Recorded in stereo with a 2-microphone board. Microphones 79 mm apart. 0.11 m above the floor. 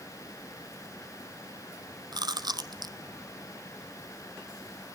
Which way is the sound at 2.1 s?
65° right (ahead or behind).